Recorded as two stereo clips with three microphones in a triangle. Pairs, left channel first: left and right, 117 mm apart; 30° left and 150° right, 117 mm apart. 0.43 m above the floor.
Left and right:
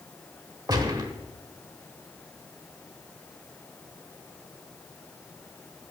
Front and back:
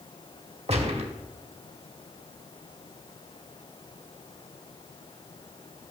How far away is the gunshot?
About 0.9 m.